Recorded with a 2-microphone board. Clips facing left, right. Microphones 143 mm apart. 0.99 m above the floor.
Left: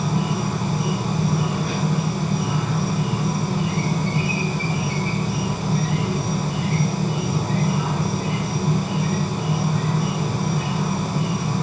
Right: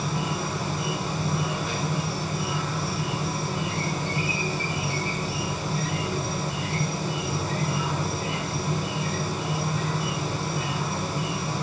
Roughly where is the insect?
Left.